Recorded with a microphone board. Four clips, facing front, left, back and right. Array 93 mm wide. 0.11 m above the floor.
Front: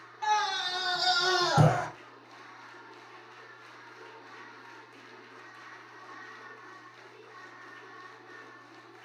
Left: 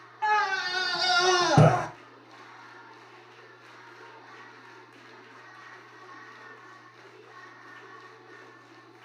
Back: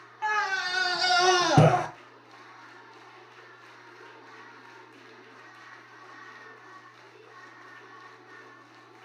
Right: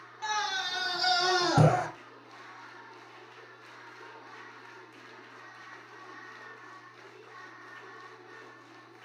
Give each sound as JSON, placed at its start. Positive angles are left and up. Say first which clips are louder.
{"t": 0.2, "sound": "a scream", "louder": "left 7 dB, even", "azimuth_deg": 130, "distance_m": 1.2}